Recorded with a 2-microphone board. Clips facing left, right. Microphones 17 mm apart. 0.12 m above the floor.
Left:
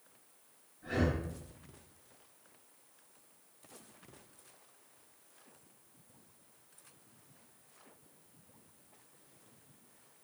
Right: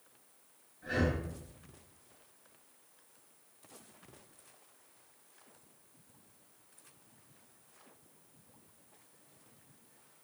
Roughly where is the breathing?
Right.